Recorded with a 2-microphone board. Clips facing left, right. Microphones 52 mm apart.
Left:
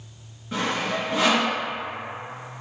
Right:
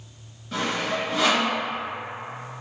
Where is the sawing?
10° left (ahead or behind), 1.6 m.